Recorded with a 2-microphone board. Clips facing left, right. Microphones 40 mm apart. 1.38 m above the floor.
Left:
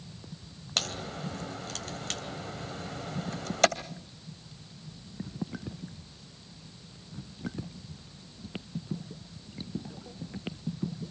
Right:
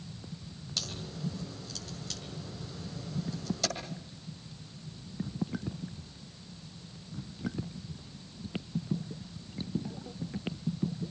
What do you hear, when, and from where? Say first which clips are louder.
0.8 s a crack: left 6 dB; 55° left (ahead or behind), 2.5 m